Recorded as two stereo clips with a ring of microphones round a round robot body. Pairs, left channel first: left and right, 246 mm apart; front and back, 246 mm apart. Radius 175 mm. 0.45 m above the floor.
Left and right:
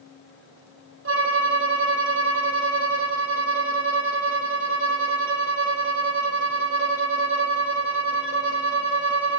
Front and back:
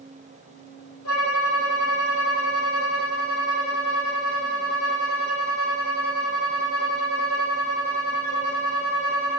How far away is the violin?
About 3 m.